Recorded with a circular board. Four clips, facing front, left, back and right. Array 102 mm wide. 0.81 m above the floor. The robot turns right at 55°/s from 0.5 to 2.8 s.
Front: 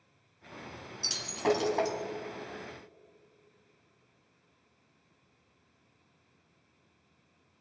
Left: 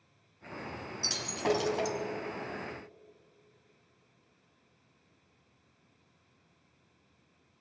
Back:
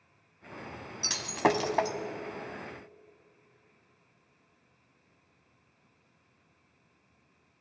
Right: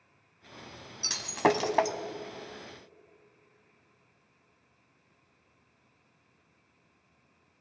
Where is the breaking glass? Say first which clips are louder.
Right 5 dB, back 2 dB; 155° right, 1.1 m; by 2.0 s 105° right, 1.1 m.